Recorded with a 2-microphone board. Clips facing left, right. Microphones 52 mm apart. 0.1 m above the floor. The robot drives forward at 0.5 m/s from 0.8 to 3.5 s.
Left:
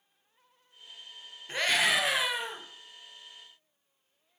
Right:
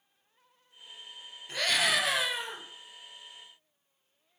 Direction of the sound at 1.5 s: 25° left (ahead or behind).